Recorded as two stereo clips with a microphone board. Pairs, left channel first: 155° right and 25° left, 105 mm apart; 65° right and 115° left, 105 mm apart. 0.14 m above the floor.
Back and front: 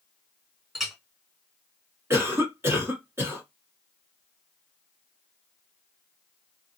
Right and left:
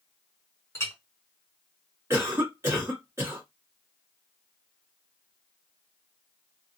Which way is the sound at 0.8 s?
70° right.